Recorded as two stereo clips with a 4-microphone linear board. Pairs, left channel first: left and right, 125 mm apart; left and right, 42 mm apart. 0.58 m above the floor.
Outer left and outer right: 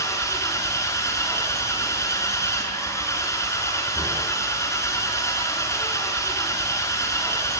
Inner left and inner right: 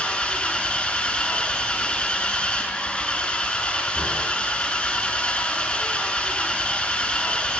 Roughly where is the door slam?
I don't hear a door slam.